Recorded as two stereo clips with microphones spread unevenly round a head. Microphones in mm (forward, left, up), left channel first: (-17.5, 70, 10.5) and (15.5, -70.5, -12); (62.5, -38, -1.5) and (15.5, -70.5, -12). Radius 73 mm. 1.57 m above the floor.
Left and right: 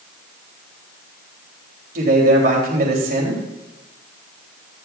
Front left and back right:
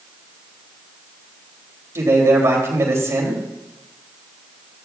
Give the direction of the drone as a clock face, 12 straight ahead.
I don't hear a drone.